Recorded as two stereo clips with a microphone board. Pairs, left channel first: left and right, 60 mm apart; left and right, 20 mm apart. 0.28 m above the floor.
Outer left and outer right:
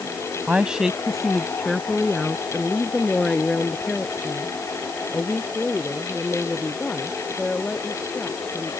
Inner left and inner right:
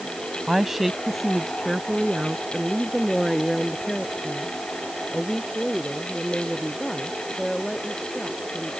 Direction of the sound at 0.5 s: 20° right (ahead or behind).